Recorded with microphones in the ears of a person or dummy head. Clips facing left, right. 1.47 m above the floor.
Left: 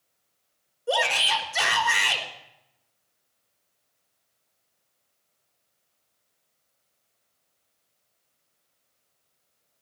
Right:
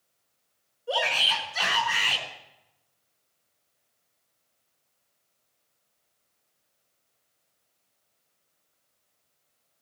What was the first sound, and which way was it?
A shout, 55° left (ahead or behind).